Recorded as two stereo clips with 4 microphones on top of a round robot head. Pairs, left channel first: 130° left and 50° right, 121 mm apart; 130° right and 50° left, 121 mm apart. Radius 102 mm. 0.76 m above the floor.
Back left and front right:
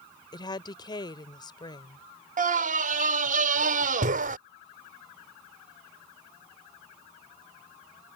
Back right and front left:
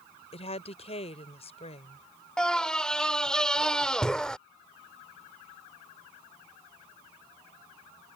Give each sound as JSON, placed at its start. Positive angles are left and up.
{"t": 0.3, "sound": "a woman speaking", "azimuth_deg": -170}
{"t": 2.4, "sound": "a scream", "azimuth_deg": -50}